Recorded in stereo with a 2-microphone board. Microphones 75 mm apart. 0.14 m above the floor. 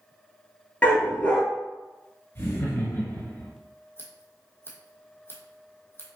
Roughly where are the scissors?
Left.